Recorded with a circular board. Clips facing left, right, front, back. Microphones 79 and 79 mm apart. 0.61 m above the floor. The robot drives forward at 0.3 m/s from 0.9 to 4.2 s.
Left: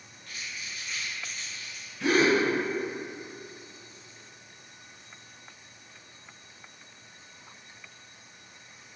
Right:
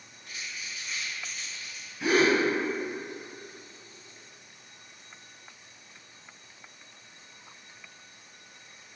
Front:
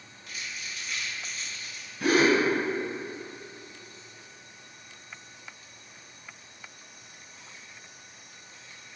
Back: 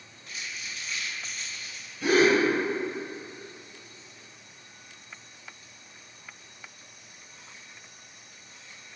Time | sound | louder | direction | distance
0.3 | crumpling | even, even | 145° right | 1.3 m
2.0 | a gasp | even, back 1 dB | 10° right | 1.1 m